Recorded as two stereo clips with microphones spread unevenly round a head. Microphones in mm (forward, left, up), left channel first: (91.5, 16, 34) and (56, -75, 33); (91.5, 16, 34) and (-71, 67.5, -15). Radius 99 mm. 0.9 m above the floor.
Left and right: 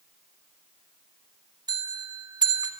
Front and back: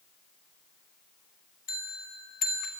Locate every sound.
1.7 s a bell: 70° right, 2 m